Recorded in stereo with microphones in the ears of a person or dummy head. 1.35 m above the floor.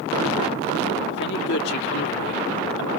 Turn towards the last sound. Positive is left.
turn(degrees=65)  # may be behind; listen again after turning